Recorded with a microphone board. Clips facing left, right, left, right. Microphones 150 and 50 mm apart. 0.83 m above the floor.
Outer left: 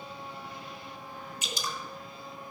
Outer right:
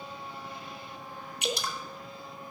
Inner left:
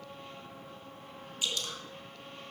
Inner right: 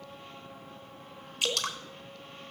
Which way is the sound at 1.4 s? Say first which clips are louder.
Outer right 6 dB, inner right 5 dB; 65° right (ahead or behind).